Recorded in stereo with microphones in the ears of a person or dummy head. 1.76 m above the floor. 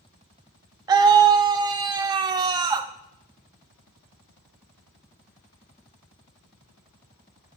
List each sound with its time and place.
0.9 s a scream: 20° right (ahead or behind), 0.8 m